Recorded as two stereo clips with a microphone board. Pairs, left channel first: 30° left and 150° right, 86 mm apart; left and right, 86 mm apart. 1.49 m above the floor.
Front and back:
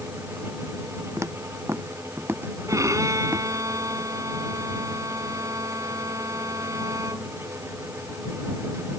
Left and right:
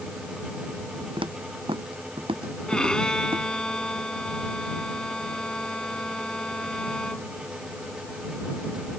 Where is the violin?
170° left.